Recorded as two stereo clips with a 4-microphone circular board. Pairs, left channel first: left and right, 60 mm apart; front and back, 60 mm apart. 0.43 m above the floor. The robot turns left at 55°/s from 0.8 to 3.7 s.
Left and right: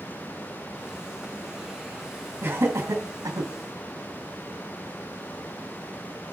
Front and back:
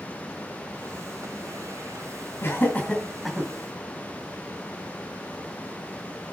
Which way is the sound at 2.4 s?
40° right.